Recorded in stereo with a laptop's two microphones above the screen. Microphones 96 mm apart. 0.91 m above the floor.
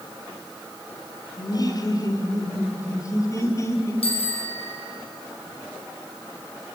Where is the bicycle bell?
85° left, 6 m.